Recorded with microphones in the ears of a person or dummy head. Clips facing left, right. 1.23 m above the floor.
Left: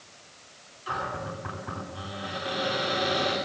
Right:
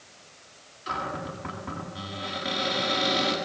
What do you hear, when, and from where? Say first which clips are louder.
0.9 s a cupboard door: even; 30° right (ahead or behind), 9 m